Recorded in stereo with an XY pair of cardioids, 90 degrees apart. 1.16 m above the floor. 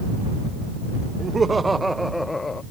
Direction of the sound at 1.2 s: 40° right.